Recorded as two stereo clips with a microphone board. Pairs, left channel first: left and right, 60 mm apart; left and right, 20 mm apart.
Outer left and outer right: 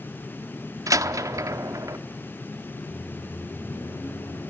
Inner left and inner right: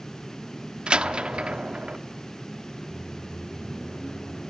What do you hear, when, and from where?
0.9 s a door slam: 65° right (ahead or behind), 1.1 m
2.9 s a microwave: 70° left (ahead or behind), 6.5 m